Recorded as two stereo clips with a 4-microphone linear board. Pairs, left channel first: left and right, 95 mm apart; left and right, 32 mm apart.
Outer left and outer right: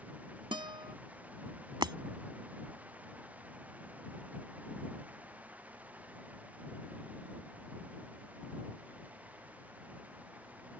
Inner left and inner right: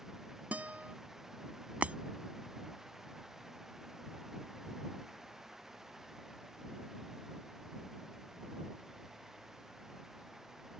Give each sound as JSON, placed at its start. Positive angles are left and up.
{"t": 0.5, "sound": "a guitar", "side_deg": -55}
{"t": 1.8, "sound": "breaking glass", "side_deg": -50}